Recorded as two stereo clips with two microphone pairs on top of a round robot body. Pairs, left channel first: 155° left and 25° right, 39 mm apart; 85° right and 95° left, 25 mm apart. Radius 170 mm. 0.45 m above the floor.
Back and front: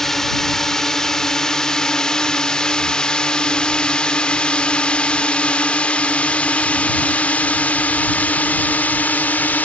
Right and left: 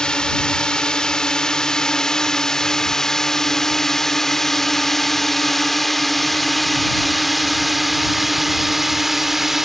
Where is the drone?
135° right; by 9.7 s 170° left.